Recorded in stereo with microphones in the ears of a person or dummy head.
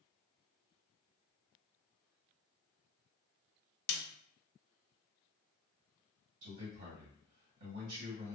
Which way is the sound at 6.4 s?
55° right (ahead or behind).